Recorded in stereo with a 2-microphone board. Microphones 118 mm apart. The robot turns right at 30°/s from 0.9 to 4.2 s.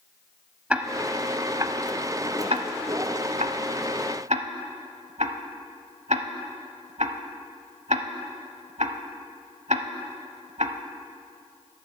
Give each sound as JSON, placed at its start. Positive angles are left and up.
{"t": 0.7, "sound": "ticking", "side_deg": -10, "distance_m": 0.7}